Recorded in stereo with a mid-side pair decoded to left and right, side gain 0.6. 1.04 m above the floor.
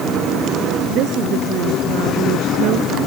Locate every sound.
0.9 s a woman speaking: 60° right; by 3.0 s 65° right